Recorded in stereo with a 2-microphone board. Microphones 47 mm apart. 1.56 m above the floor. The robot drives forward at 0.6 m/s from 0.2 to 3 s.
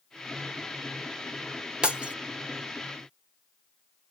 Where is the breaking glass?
20° right (ahead or behind), 0.6 m.